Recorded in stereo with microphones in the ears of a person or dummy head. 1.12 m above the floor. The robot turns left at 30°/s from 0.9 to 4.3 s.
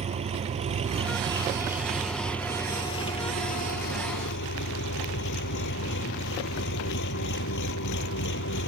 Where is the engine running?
145° right; by 8.7 s 115° left.